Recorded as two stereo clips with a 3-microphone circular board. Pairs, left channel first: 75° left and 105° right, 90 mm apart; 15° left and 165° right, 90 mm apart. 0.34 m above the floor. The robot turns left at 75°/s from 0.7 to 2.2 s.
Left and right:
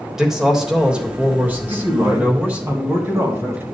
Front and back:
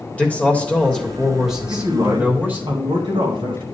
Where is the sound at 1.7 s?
125° right, 2 m; by 3.6 s 165° right, 2 m.